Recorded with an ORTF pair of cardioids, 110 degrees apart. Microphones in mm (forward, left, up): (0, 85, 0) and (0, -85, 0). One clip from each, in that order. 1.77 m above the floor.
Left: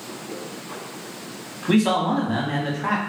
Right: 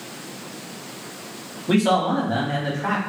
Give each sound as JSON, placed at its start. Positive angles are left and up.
{"t": 1.7, "sound": "a man speaking", "azimuth_deg": 5, "distance_m": 1.0}